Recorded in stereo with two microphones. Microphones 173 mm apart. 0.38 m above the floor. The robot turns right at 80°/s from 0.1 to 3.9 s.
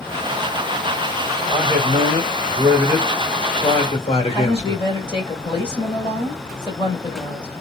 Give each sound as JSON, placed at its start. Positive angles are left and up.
{"t": 1.5, "sound": "a man speaking", "azimuth_deg": -115, "distance_m": 1.4}
{"t": 4.3, "sound": "a woman speaking", "side_deg": 30, "distance_m": 2.0}